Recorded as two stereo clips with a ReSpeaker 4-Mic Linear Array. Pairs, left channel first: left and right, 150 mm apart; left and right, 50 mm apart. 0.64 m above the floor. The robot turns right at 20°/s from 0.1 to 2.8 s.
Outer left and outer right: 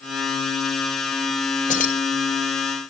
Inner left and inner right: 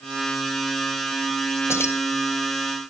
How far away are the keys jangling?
About 1.5 m.